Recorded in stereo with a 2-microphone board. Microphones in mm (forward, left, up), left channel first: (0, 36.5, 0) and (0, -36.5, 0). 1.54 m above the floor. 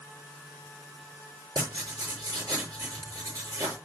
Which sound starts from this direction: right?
Writing, at 1.6 s.